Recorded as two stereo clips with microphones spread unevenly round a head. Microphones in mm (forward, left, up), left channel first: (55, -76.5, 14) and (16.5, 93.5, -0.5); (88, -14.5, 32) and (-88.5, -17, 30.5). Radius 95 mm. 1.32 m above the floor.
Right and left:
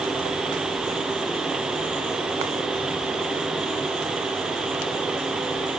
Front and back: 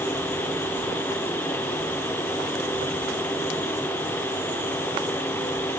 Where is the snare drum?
No snare drum in this recording.